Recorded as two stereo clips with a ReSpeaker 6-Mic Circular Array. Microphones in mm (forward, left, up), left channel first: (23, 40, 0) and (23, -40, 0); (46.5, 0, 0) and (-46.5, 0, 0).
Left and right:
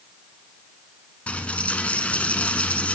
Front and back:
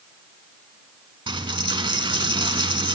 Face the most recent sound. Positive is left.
turn(degrees=160)